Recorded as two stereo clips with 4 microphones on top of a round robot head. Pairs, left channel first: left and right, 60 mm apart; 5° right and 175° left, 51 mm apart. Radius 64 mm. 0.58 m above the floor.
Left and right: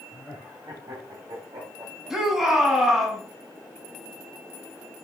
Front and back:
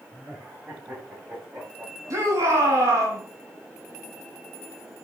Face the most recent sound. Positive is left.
turn(degrees=-170)